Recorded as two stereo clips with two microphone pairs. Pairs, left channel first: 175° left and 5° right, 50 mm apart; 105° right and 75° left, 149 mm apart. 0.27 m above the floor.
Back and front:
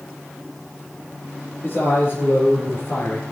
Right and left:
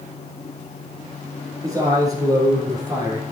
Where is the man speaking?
140° left, 5 m; by 3.2 s 145° left, 3.5 m.